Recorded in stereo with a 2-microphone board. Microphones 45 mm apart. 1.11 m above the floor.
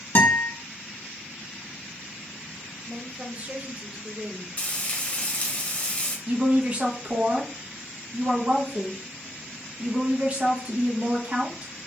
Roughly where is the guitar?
Left.